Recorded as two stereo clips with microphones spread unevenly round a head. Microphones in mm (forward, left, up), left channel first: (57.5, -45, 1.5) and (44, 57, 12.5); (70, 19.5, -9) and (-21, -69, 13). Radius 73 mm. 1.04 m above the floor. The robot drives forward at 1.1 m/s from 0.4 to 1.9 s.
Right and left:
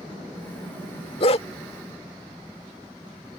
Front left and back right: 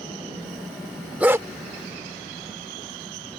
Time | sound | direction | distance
1.2 | a dog barking | 65° right | ?